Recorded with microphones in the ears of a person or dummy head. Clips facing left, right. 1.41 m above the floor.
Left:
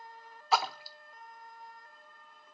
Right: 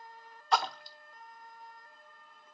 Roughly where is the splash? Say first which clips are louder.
Even; centre.